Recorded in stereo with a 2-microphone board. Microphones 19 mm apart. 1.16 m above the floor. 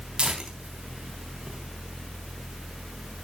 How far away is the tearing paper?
About 3.5 m.